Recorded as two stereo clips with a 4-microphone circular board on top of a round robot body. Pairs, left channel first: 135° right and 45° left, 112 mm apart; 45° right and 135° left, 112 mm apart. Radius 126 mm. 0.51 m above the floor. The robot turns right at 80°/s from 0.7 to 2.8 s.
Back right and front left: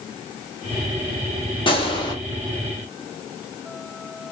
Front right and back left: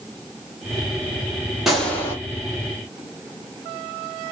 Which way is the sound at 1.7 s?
140° right.